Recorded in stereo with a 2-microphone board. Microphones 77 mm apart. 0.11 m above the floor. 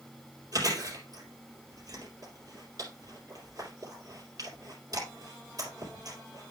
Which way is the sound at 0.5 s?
50° right (ahead or behind).